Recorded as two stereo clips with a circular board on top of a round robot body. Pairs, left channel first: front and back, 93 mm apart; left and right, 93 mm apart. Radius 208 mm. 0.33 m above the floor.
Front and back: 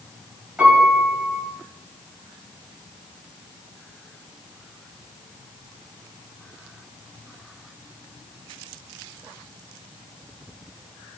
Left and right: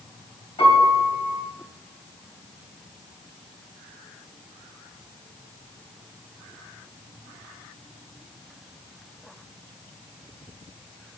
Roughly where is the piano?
Left.